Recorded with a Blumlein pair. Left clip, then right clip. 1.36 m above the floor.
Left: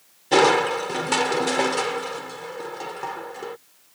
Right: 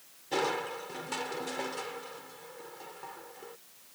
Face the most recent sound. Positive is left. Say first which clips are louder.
# left 14 dB
turn(degrees=55)